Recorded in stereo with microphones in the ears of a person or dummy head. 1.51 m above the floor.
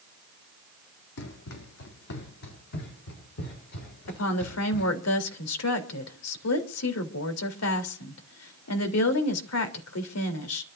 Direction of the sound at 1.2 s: 65° left (ahead or behind).